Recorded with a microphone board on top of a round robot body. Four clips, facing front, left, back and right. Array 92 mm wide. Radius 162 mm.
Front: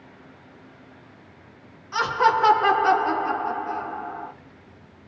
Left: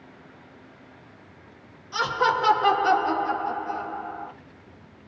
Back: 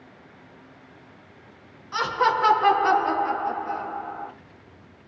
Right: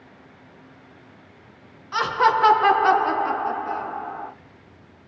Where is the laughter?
80° right, 1.7 m.